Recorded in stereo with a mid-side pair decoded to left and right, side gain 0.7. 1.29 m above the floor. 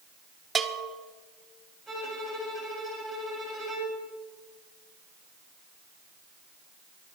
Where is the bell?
20° right, 1.2 m.